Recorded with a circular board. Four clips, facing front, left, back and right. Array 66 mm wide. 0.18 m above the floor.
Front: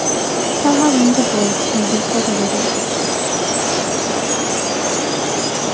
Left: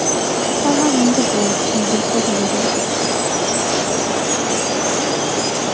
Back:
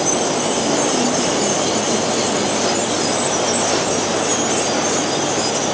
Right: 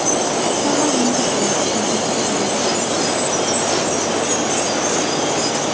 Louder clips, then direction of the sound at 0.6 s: Left 5 dB, front 9 dB; 20° left.